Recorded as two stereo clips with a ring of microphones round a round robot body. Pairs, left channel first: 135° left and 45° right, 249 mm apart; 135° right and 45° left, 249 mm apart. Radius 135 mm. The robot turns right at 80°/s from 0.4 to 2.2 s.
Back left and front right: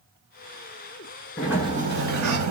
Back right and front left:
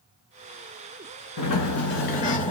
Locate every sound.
1.4 s a sliding door: 140° right, 1.3 m; by 2.5 s 75° right, 1.3 m